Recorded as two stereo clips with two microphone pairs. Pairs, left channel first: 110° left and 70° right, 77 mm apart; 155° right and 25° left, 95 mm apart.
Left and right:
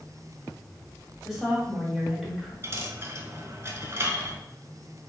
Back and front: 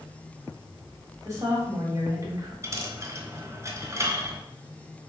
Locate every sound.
1.2 s a woman speaking: 20° left, 1.4 m
2.6 s a dropped coin: 25° right, 0.7 m